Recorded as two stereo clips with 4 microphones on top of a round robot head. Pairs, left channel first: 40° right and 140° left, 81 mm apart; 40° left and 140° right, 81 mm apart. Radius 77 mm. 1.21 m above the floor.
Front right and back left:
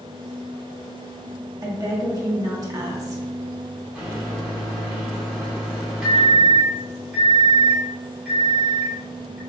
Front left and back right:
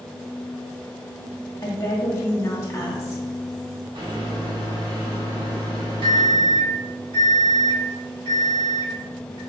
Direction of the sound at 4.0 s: 135° right.